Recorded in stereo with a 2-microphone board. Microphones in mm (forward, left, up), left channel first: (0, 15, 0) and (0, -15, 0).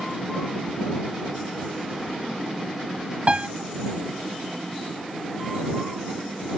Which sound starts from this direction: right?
A piano, at 3.3 s.